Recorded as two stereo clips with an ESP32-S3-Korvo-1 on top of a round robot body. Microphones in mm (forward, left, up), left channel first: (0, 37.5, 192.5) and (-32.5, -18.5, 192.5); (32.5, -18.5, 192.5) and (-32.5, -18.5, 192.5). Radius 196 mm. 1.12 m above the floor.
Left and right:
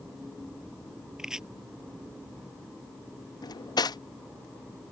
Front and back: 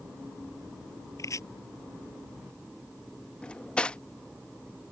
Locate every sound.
1.2 s chopping: 40° right
3.4 s cutlery clinking: 75° left